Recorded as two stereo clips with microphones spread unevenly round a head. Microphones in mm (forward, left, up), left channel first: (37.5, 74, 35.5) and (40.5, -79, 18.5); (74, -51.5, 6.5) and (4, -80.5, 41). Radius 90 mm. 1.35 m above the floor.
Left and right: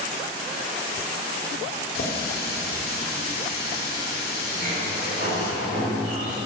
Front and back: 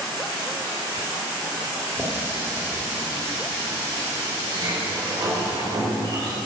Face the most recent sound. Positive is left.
turn(degrees=-140)